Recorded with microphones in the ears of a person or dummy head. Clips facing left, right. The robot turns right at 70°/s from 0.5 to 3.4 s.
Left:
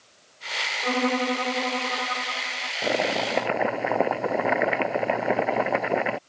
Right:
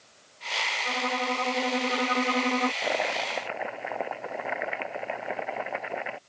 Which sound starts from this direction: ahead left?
Chopping, at 2.8 s.